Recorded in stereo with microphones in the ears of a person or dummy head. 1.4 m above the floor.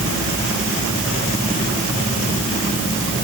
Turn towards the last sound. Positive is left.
No sound to turn to.